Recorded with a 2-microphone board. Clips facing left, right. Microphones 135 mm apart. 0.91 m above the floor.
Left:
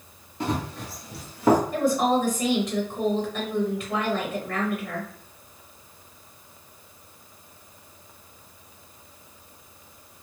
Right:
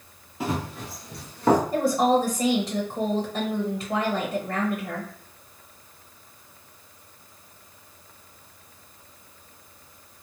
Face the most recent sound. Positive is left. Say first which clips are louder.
# right 1 dB
turn(degrees=-30)  # may be behind; listen again after turning